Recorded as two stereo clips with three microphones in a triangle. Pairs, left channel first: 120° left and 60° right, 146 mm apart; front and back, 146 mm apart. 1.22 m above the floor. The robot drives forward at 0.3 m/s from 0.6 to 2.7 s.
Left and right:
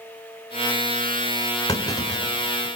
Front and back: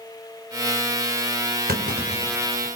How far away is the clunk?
About 4 m.